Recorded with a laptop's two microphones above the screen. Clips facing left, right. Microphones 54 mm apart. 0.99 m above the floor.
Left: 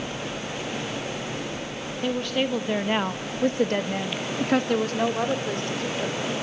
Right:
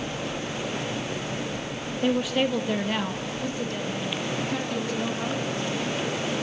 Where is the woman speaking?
15° right (ahead or behind), 1.7 m; by 6.2 s 70° left (ahead or behind), 4.5 m.